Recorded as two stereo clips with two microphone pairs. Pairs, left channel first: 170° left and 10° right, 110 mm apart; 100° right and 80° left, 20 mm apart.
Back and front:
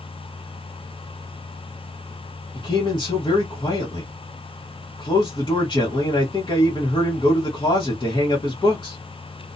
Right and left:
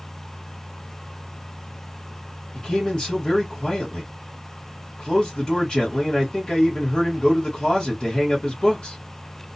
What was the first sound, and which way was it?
A man speaking, 140° right.